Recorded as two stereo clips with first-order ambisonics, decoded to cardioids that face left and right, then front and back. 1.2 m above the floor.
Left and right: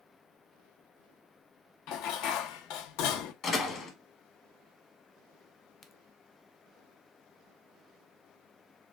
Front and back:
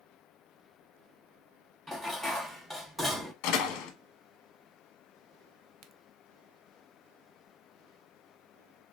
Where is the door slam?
30° left, 1.0 m.